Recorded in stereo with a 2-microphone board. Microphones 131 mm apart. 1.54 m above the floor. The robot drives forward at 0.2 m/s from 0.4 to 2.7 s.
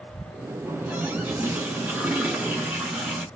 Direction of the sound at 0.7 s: 15° right (ahead or behind).